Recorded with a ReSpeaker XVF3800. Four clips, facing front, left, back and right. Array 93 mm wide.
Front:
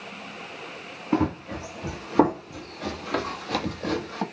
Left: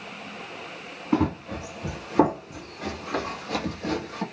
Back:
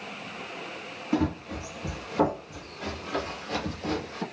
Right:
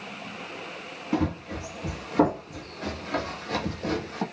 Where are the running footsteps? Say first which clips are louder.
Left 3 dB, front 3 dB; 45° left, 1.7 m; by 4.2 s 15° right, 1.7 m.